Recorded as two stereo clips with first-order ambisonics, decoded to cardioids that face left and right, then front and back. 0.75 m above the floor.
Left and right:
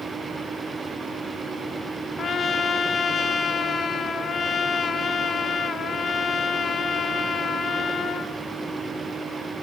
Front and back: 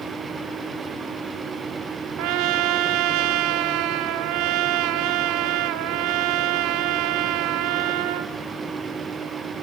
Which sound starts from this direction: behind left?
A trumpet, at 2.2 s.